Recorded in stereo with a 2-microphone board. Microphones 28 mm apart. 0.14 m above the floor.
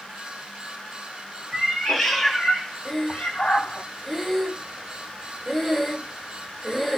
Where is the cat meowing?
5° right (ahead or behind), 1.6 m; by 3.9 s 55° left (ahead or behind), 0.8 m.